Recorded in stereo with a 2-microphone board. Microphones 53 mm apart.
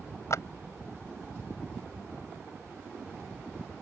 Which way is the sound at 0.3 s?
75° left (ahead or behind).